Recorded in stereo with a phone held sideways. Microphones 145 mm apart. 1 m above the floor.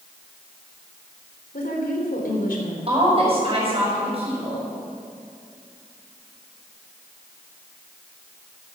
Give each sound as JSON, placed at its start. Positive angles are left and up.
{"t": 1.5, "sound": "a woman speaking", "side_deg": 75, "distance_m": 3.5}
{"t": 2.9, "sound": "a woman speaking", "side_deg": -45, "distance_m": 6.5}